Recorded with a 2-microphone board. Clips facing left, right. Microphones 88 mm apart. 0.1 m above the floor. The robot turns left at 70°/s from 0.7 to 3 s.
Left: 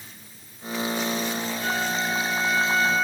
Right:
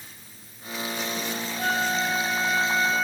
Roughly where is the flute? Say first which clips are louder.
Right 3 dB; right.